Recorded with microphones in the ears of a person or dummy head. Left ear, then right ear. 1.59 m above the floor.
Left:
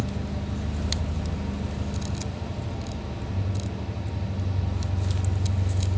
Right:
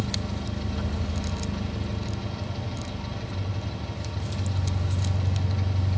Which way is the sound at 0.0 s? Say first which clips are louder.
Right 2 dB; 45° right (ahead or behind).